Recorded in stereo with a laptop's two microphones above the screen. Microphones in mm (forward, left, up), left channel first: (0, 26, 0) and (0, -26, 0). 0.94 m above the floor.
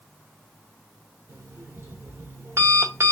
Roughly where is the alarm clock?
Right.